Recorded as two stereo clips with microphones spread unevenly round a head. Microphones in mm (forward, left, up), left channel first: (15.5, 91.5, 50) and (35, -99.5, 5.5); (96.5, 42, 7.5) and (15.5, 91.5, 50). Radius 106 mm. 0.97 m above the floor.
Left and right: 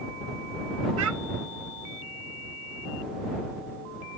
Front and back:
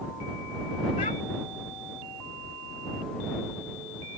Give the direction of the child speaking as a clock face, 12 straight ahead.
3 o'clock.